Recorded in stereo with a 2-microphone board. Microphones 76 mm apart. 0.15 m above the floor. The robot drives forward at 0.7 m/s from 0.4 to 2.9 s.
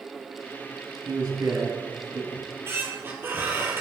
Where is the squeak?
40° right (ahead or behind), 0.9 m; by 3.8 s 30° right (ahead or behind), 1.2 m.